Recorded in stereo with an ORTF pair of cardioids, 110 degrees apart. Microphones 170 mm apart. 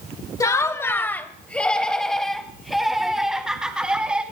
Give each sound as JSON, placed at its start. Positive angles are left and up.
{"t": 0.4, "sound": "laughter", "azimuth_deg": 20, "distance_m": 1.8}